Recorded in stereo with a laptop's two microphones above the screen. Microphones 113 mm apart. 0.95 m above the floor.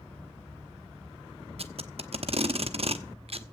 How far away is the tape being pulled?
About 1.0 m.